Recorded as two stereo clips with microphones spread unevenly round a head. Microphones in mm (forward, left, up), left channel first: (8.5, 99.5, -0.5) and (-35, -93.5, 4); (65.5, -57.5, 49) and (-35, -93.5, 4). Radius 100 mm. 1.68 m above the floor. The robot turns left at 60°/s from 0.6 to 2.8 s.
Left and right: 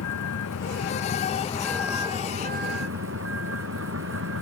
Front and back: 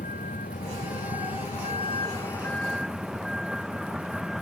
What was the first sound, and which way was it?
A vehicle, 60° left.